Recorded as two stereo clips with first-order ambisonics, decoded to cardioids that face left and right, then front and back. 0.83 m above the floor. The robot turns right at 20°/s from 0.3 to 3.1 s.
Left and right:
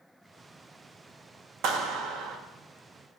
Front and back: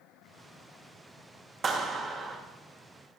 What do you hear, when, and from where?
1.6 s a clap: 120° right, 1.2 m; by 2.4 s 105° right, 1.2 m